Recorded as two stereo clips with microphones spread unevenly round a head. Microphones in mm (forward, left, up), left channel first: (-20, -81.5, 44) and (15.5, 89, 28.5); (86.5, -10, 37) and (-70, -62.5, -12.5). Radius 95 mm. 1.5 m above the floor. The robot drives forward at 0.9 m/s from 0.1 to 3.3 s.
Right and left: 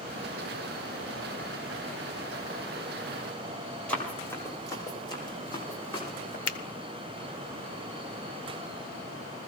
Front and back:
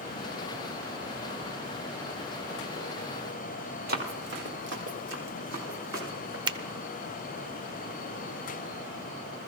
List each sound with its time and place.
3.9 s running footsteps: 175° right, 1.7 m; by 6.4 s 160° right, 3.5 m
6.5 s a finger snap: 90° right, 0.6 m